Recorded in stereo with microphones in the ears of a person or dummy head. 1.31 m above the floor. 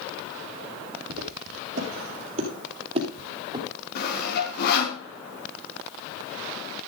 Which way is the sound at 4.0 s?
60° left (ahead or behind).